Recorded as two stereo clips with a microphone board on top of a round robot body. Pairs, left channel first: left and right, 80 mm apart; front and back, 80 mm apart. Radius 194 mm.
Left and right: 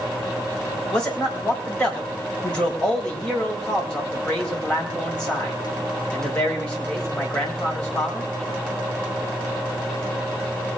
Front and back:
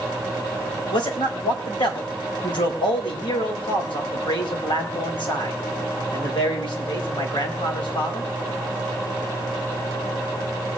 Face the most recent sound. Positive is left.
turn(degrees=10)